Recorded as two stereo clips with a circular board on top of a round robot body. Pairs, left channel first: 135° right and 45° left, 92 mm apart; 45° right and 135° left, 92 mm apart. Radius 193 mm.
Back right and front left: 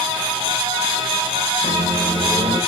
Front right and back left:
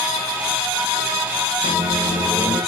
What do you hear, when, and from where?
1.6 s a microwave: 170° left, 3 m